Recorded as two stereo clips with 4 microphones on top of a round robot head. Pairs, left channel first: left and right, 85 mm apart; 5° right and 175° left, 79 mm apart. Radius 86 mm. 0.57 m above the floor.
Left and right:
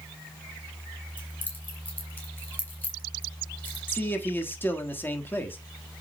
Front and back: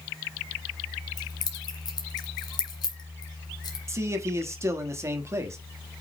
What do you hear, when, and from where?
1.2 s keys jangling: 20° left, 2 m
3.9 s a man speaking: 145° left, 1.5 m